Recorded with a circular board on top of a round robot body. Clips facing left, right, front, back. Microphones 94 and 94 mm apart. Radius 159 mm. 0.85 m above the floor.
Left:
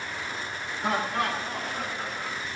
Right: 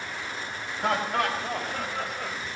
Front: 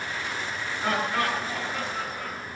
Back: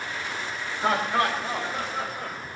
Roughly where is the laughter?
Behind right.